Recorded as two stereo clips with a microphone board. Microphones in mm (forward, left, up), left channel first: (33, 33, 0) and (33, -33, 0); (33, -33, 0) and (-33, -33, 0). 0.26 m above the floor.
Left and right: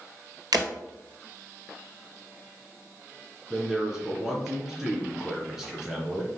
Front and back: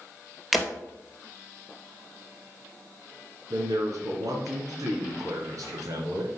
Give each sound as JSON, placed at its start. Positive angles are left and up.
{"t": 0.5, "sound": "breaking glass", "azimuth_deg": -90, "distance_m": 1.7}
{"t": 3.5, "sound": "a man speaking", "azimuth_deg": -170, "distance_m": 2.5}